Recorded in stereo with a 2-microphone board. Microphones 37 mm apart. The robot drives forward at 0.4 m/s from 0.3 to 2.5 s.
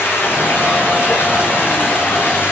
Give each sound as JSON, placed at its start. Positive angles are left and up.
{"t": 0.0, "sound": "running water", "side_deg": 80, "distance_m": 8.0}